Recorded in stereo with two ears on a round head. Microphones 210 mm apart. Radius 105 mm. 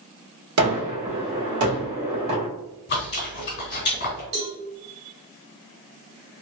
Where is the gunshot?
70° right (ahead or behind), 1.5 m.